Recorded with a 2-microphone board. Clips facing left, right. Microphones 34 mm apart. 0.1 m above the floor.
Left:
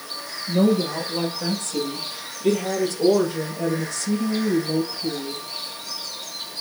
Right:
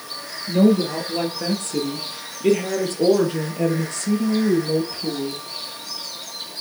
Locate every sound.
0.5 s a woman speaking: 35° right (ahead or behind), 2.5 m; by 5.4 s 50° right (ahead or behind), 3 m